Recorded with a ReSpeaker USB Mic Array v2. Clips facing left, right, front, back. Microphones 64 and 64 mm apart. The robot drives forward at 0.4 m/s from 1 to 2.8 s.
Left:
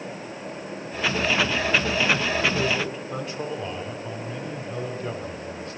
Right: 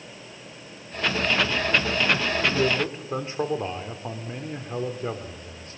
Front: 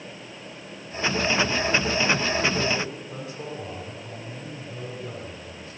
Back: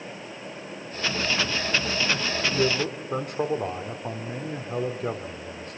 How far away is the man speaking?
About 3.5 m.